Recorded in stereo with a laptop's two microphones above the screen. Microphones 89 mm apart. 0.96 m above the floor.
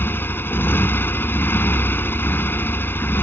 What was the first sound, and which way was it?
A motorcycle, 25° left (ahead or behind).